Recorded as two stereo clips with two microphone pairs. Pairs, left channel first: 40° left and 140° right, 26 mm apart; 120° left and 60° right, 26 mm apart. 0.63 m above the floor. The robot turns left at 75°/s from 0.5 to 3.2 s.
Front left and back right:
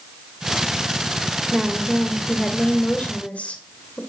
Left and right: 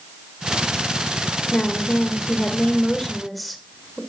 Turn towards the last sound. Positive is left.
turn(degrees=25)